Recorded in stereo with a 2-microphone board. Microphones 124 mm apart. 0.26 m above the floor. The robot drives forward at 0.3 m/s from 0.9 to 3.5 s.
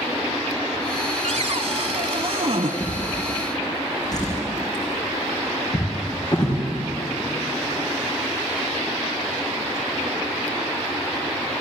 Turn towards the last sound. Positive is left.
turn(degrees=30)  # may be behind; listen again after turning